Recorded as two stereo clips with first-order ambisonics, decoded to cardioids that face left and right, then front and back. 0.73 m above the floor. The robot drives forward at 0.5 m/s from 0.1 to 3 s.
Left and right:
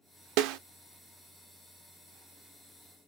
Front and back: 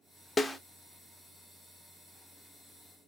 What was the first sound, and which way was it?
A snare drum, 75° right.